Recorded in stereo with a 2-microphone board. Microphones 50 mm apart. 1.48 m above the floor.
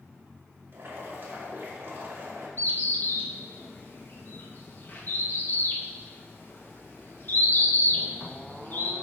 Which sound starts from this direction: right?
Boiling, at 0.7 s.